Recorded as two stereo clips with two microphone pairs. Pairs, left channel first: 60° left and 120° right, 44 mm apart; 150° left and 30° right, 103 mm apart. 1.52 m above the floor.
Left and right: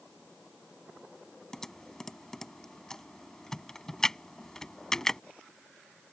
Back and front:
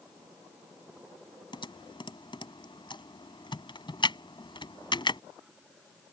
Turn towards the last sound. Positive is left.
turn(degrees=135)